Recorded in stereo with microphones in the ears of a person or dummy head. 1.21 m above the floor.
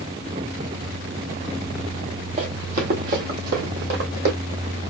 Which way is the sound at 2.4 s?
40° right (ahead or behind).